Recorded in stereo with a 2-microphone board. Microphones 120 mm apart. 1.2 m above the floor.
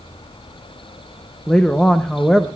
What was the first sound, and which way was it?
A woman speaking, 5° left (ahead or behind).